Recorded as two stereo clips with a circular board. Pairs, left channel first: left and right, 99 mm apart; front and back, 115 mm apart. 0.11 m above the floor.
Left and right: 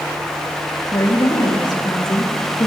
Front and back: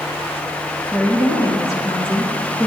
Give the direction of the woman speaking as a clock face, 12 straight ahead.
10 o'clock.